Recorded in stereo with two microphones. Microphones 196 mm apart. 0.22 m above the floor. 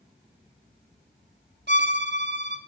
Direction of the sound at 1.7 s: 60° right (ahead or behind).